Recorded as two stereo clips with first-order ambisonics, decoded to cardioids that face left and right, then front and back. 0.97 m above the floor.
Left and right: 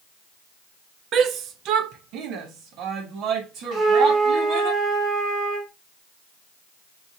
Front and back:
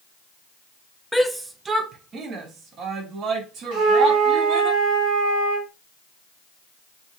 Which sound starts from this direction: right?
A shout, at 1.1 s.